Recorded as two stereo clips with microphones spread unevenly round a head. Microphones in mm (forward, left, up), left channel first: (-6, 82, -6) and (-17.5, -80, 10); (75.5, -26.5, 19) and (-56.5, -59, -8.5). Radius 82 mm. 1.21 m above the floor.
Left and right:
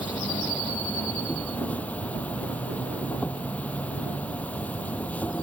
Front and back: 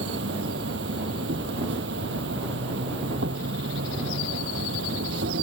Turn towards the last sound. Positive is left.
turn(degrees=170)